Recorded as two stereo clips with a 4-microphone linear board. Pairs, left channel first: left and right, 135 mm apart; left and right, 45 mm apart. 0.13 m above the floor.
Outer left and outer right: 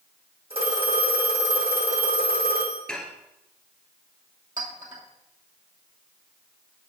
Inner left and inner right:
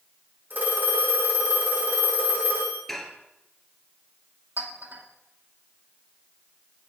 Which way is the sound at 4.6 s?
70° right (ahead or behind).